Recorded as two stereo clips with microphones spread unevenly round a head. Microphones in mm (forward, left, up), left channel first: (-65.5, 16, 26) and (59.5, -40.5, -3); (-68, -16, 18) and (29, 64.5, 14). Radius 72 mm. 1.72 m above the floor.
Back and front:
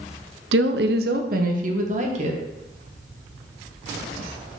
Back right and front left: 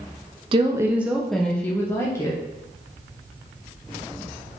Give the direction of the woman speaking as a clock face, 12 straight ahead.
1 o'clock.